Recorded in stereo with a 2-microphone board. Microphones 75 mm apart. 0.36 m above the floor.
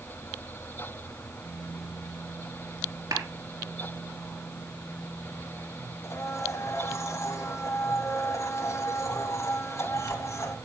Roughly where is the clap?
Right.